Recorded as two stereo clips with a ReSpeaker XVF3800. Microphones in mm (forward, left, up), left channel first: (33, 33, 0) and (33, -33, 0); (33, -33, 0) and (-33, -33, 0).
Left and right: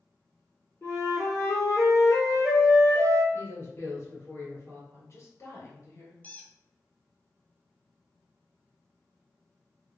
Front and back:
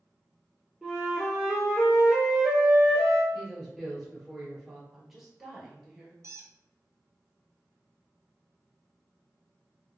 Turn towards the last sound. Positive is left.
turn(degrees=150)